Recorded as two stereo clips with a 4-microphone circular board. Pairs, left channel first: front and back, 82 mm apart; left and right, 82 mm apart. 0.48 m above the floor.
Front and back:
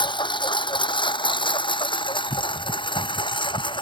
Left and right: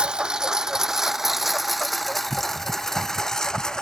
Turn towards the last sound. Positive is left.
turn(degrees=5)